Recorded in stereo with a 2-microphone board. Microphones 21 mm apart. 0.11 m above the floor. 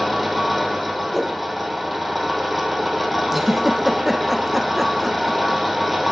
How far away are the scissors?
I don't hear scissors.